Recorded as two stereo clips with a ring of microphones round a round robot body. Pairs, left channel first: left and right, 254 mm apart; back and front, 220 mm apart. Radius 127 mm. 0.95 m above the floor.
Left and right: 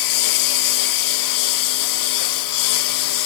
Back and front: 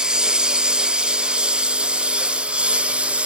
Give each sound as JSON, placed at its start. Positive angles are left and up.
{"t": 0.0, "sound": "a lawn mower", "azimuth_deg": 85}